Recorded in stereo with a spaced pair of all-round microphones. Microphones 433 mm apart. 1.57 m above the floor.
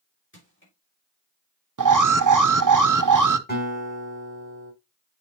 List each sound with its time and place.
0.3 s crushing: 25° left (ahead or behind), 5 m
1.8 s an alarm: 45° right (ahead or behind), 0.6 m
3.5 s a guitar: 25° left (ahead or behind), 5.5 m